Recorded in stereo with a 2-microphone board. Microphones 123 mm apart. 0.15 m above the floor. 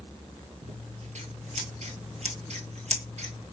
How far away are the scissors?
About 1.0 m.